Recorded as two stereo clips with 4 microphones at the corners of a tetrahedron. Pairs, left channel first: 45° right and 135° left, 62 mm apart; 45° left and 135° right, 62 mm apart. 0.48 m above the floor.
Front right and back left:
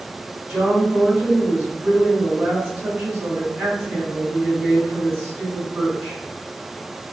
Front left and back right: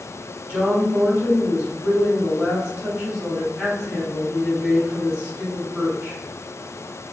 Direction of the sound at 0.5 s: 165° left.